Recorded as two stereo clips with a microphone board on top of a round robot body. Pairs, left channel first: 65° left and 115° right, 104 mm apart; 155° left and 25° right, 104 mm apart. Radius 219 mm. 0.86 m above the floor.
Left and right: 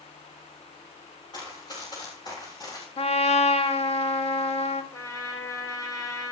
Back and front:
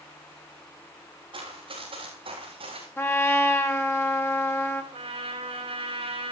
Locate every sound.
1.3 s running footsteps: 15° left, 7.5 m
3.0 s a trumpet: 90° left, 2 m
4.9 s a trumpet: 5° left, 4 m